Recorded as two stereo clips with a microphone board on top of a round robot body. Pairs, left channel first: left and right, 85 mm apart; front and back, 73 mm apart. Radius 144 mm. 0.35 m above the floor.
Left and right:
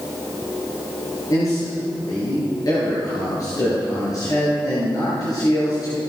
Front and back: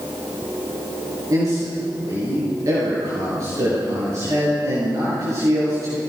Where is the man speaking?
135° left, 9 m.